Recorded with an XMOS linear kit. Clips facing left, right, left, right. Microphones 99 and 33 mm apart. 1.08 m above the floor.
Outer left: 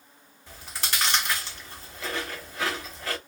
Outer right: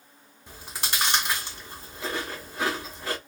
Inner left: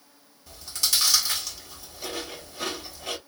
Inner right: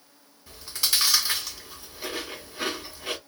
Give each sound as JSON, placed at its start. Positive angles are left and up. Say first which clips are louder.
{"t": 0.5, "sound": "chewing", "louder": "even, even", "side_deg": -15, "distance_m": 1.8}